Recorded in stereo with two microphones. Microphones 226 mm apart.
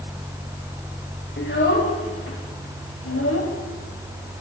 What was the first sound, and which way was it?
A child speaking, 55° left (ahead or behind).